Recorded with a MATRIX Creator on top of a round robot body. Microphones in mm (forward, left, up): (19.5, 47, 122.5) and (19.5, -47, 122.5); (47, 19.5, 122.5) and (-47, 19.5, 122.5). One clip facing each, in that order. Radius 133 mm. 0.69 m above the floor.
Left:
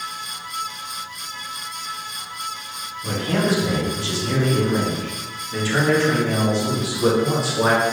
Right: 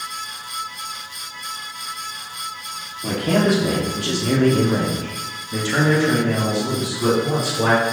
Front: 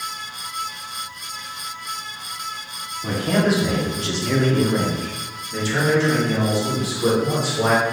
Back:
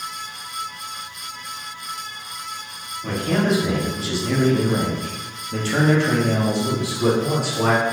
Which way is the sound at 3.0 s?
75° right.